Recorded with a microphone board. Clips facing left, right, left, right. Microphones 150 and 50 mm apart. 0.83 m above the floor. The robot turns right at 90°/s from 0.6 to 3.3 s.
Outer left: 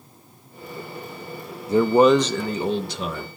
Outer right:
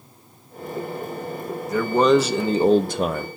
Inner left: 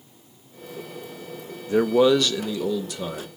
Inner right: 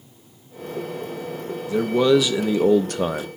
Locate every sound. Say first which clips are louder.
1.7 s a man speaking: outer left 2 dB, even; 140° left, 0.6 m; by 3.3 s 75° right, 0.6 m